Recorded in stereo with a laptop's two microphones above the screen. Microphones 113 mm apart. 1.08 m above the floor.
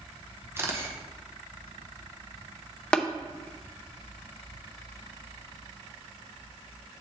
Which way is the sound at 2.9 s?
10° left (ahead or behind).